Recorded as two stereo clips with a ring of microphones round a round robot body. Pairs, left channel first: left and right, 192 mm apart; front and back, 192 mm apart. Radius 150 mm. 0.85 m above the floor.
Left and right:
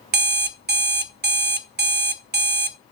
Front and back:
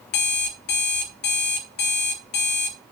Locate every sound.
0.1 s an alarm clock: 55° right, 0.7 m